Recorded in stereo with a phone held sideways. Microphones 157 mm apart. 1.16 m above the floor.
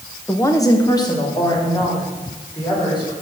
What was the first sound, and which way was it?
A woman speaking, 15° left (ahead or behind).